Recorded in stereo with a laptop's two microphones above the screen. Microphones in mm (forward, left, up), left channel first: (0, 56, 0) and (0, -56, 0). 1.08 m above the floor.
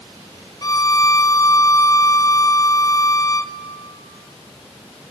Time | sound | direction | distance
0.6 | a violin | 35° left (ahead or behind) | 0.7 m